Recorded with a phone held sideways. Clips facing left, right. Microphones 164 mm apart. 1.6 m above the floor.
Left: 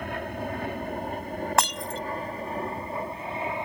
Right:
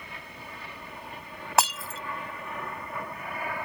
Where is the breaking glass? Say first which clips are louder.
Right 2 dB; 5° right (ahead or behind).